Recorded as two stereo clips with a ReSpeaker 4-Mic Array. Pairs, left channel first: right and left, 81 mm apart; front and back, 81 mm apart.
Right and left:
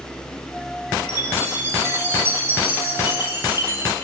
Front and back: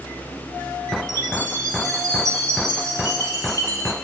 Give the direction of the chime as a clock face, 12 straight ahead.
7 o'clock.